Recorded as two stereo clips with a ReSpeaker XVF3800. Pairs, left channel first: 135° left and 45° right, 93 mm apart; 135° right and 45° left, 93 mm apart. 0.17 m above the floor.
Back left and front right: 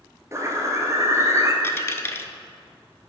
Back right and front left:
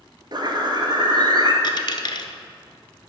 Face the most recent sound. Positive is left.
turn(degrees=-165)